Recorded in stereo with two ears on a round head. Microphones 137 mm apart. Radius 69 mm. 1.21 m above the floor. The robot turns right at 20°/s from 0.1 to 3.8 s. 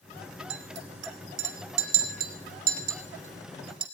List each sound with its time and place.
0.5 s a clink: 80° right, 2 m; by 3.8 s 35° right (ahead or behind), 2 m